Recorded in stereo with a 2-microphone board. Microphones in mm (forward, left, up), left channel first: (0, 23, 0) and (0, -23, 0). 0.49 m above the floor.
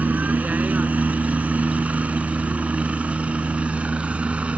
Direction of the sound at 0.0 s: 35° right (ahead or behind).